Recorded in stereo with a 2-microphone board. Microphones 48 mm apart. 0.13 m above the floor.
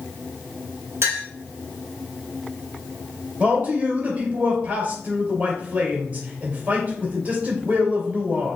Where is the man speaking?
35° right (ahead or behind), 2.5 m.